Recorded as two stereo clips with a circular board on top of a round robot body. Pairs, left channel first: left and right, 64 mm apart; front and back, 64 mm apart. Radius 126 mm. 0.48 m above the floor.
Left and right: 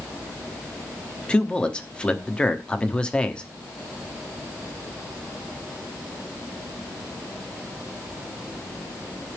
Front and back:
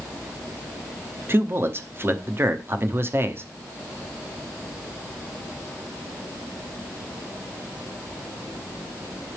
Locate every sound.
1.3 s a man speaking: 155° left, 1.1 m